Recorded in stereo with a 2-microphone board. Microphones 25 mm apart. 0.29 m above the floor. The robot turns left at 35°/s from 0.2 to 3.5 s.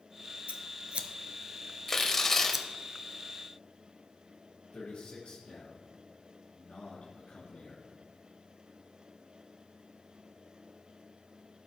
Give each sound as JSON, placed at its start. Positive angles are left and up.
{"t": 0.5, "sound": "scissors", "side_deg": -80, "distance_m": 0.7}
{"t": 1.9, "sound": "tearing paper", "side_deg": 15, "distance_m": 1.0}
{"t": 4.7, "sound": "a man speaking", "side_deg": 60, "distance_m": 2.5}